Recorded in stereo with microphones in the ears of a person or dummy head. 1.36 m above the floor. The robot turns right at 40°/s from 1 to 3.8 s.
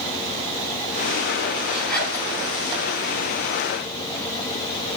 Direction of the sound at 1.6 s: 5° right (ahead or behind).